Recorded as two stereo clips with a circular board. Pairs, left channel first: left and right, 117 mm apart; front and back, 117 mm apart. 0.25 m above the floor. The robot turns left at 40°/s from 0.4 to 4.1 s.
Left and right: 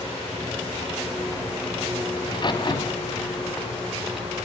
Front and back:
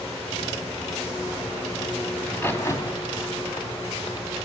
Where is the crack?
75° left, 2 m; by 4.3 s straight ahead, 2 m.